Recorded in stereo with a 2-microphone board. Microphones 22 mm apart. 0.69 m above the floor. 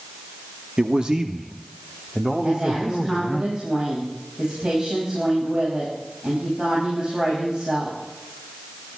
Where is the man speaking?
50° right (ahead or behind), 0.9 m; by 3.4 s centre (ahead or behind), 1.8 m.